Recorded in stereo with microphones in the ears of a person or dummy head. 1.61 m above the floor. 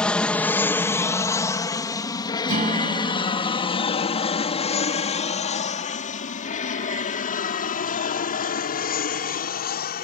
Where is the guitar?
40° right (ahead or behind).